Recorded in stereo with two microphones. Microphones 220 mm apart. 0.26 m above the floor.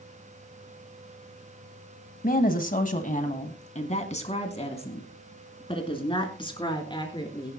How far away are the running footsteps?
No running footsteps in this recording.